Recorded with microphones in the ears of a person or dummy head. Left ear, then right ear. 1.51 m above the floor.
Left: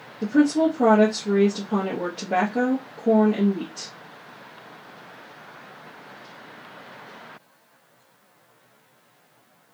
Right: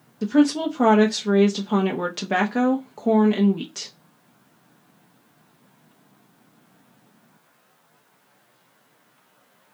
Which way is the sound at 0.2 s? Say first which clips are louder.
Even; 55° right (ahead or behind).